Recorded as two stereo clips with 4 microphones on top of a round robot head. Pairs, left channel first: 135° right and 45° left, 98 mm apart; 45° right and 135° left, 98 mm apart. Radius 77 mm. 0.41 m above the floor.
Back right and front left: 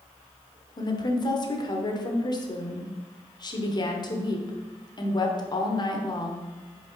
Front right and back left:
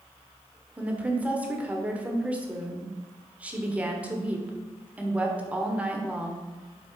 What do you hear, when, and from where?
0.8 s a woman speaking: 150° right, 1.3 m